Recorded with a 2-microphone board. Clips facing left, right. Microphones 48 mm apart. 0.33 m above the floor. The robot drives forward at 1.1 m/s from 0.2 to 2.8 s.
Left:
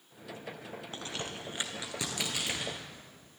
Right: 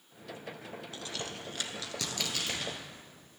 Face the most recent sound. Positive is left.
turn(degrees=10)  # may be behind; listen again after turning